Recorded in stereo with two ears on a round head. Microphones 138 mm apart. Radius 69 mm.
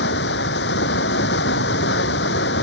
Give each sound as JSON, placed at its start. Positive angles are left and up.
{"t": 0.0, "sound": "running water", "side_deg": 80}